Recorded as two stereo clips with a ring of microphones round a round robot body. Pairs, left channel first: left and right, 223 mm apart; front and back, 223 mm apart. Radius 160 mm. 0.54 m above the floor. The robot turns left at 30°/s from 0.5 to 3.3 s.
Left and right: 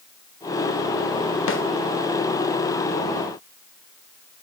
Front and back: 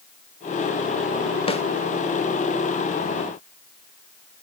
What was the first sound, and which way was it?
A snare drum, 65° left.